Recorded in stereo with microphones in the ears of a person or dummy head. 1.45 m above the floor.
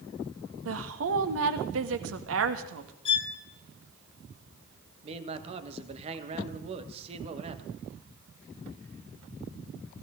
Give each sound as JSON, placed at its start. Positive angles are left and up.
{"t": 0.7, "sound": "a woman speaking", "side_deg": -80, "distance_m": 1.6}
{"t": 3.0, "sound": "a violin", "side_deg": 30, "distance_m": 2.0}
{"t": 5.0, "sound": "a man speaking", "side_deg": -35, "distance_m": 1.6}